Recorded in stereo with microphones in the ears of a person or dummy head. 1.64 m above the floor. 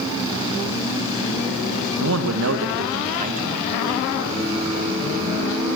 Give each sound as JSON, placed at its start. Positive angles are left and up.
{"t": 2.0, "sound": "a man speaking", "side_deg": -75, "distance_m": 1.9}
{"t": 4.3, "sound": "a blender", "side_deg": -75, "distance_m": 9.0}